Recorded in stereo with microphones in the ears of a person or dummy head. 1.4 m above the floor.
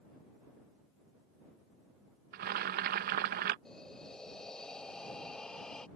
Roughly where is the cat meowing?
I don't hear a cat meowing.